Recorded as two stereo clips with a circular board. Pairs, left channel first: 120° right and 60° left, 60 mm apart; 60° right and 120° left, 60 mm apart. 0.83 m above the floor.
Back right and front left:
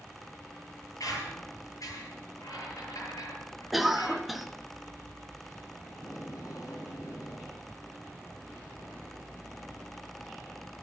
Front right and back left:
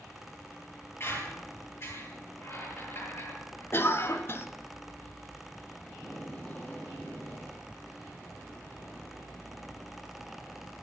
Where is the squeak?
105° right, 8 m.